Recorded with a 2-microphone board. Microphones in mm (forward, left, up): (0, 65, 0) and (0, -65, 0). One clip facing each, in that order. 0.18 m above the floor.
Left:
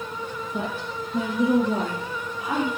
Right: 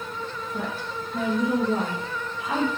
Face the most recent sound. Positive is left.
turn(degrees=30)  # may be behind; listen again after turning